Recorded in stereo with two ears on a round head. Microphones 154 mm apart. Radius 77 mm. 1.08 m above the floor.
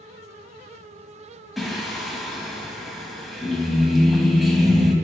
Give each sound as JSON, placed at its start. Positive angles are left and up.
{"t": 1.6, "sound": "singing", "side_deg": 0, "distance_m": 1.2}